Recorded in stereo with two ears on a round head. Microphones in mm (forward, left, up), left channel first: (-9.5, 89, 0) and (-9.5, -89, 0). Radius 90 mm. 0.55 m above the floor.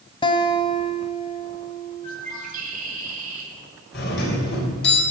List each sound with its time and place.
0.2 s a guitar: 25° left (ahead or behind), 1.0 m
2.0 s a bird: 40° right (ahead or behind), 4.5 m
3.9 s a doorbell: 55° left (ahead or behind), 3.5 m